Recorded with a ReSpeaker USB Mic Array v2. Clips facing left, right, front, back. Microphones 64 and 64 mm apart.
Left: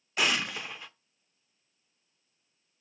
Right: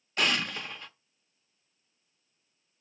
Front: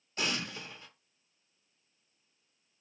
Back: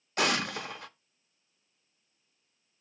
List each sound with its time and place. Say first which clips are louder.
0.2 s an explosion: even, back 7 dB; 175° left, 0.7 m